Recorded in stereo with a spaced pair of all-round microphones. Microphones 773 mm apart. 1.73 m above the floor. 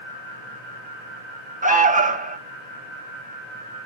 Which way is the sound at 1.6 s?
10° right (ahead or behind).